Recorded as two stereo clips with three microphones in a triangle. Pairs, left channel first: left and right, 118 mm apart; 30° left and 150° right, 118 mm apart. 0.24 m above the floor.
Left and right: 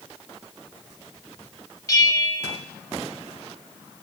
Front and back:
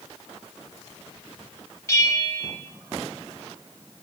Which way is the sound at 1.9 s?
65° left.